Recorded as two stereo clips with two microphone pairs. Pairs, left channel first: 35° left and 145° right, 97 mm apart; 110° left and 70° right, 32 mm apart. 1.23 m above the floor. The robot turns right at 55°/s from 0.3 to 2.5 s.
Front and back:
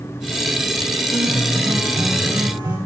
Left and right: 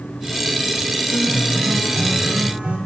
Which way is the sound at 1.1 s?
170° left.